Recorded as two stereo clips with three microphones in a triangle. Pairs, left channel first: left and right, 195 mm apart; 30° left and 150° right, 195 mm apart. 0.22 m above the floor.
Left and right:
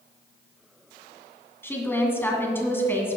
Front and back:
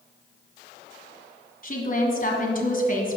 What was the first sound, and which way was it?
A woman speaking, 15° left.